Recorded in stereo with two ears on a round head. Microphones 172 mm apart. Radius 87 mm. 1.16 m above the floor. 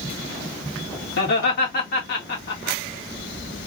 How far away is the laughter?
About 1.8 m.